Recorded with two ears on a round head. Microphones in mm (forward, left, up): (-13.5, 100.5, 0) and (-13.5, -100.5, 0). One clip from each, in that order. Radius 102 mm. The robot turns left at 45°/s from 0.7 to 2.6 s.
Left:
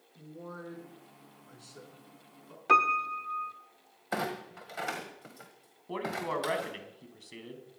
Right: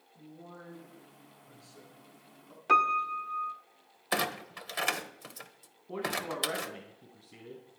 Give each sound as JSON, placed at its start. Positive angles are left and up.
{"t": 0.1, "sound": "a man speaking", "side_deg": 75, "distance_m": 6.5}
{"t": 2.7, "sound": "a piano", "side_deg": 0, "distance_m": 1.0}
{"t": 4.1, "sound": "a clunk", "side_deg": -70, "distance_m": 1.5}
{"t": 5.9, "sound": "a man speaking", "side_deg": 70, "distance_m": 4.0}